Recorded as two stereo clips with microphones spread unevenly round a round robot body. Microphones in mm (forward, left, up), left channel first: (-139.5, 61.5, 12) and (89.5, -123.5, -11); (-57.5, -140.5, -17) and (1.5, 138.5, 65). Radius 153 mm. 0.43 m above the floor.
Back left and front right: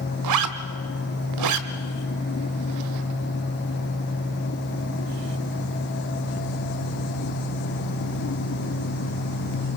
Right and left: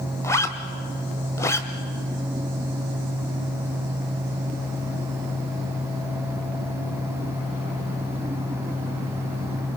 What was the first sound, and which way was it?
A zipper, 30° right.